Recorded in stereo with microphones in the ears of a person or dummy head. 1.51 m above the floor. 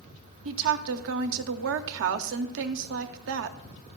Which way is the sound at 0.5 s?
65° right (ahead or behind).